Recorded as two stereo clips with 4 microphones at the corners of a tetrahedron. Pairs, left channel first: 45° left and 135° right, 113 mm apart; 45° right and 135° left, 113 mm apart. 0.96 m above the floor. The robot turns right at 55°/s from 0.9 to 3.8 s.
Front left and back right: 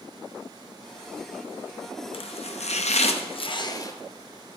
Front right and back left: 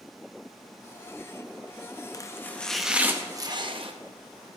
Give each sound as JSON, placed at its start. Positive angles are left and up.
{"t": 2.1, "sound": "chopping", "azimuth_deg": 10, "distance_m": 0.7}